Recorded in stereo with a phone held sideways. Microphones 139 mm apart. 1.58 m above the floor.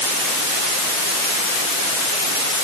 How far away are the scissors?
I don't hear scissors.